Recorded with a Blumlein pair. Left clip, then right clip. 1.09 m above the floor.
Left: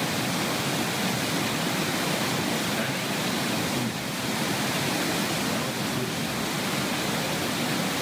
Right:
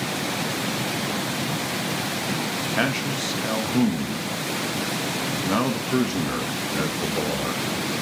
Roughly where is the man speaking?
Ahead right.